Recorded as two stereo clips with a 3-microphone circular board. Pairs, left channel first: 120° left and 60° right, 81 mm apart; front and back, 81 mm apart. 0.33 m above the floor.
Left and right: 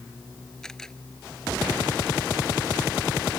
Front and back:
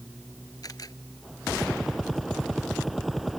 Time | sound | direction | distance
0.6 | a camera shutter | 40° left | ?